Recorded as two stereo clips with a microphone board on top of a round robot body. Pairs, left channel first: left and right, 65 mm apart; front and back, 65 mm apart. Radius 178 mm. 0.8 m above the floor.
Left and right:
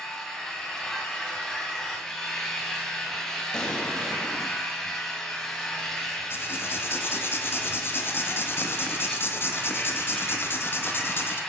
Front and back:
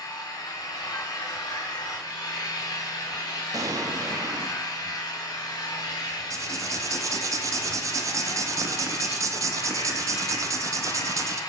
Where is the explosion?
170° left, 1.6 m.